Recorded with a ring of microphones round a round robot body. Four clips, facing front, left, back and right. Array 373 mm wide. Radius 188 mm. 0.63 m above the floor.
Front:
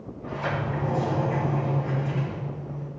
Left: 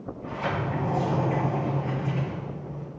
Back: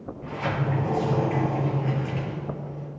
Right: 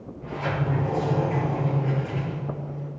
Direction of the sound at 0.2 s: Straight behind.